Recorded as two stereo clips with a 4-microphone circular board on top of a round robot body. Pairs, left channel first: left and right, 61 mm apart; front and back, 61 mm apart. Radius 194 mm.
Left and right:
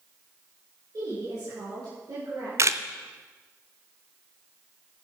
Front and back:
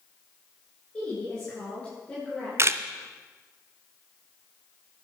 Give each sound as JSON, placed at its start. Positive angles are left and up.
{"t": 0.9, "sound": "a woman speaking", "azimuth_deg": -75, "distance_m": 6.5}
{"t": 2.6, "sound": "a camera shutter", "azimuth_deg": -135, "distance_m": 0.7}